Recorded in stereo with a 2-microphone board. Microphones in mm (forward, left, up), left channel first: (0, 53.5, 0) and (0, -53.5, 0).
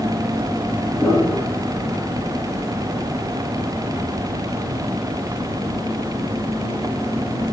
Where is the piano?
10° left (ahead or behind), 2.5 m.